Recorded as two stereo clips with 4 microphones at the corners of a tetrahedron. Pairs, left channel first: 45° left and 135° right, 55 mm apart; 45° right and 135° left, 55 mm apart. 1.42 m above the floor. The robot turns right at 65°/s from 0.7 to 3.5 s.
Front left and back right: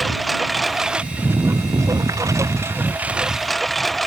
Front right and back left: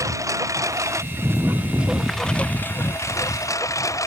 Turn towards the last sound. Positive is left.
turn(degrees=-40)